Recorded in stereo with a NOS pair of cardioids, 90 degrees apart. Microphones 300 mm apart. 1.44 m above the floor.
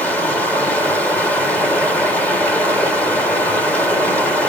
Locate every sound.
0.0 s running water: 5° left, 2 m